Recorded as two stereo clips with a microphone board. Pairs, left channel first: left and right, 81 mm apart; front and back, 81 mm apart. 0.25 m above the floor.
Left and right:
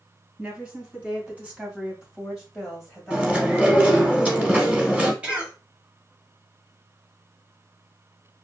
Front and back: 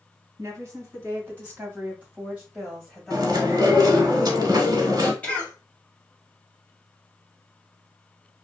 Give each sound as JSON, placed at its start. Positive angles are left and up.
{"t": 0.4, "sound": "a woman speaking", "azimuth_deg": -150, "distance_m": 1.9}
{"t": 3.1, "sound": "chewing", "azimuth_deg": -160, "distance_m": 0.8}
{"t": 5.2, "sound": "a cough", "azimuth_deg": -40, "distance_m": 1.0}